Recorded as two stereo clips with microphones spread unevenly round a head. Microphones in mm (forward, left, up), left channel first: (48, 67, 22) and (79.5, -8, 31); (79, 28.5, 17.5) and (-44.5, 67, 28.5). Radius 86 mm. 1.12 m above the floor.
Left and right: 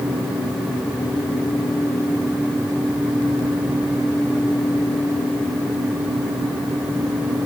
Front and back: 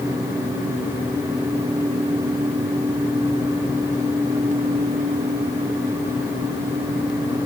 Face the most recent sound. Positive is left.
No sound to turn to.